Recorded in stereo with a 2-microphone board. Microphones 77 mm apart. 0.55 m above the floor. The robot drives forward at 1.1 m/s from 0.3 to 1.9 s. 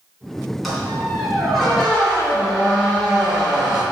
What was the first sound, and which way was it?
A squeak, centre (ahead or behind).